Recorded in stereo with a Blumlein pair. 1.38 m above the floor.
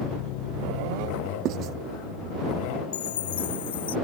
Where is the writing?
35° right.